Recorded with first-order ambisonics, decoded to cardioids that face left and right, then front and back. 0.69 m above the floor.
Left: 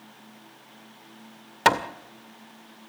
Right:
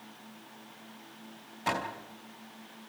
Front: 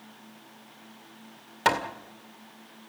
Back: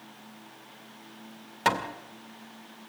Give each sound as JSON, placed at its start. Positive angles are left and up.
{"t": 1.6, "sound": "hammering", "azimuth_deg": 80, "distance_m": 2.0}